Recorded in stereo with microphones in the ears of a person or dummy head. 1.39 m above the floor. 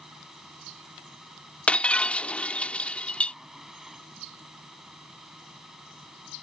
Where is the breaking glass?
5° left (ahead or behind).